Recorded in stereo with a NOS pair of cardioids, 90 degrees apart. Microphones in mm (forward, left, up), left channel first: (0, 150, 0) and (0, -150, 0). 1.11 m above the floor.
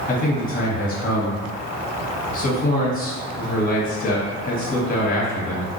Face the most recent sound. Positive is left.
turn(degrees=30)